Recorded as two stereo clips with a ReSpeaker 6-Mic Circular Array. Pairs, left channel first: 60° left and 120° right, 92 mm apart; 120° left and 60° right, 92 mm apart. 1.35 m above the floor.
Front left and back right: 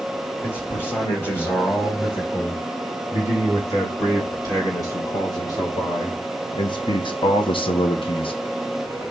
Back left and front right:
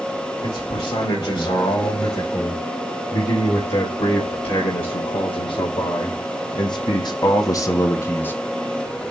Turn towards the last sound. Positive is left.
turn(degrees=50)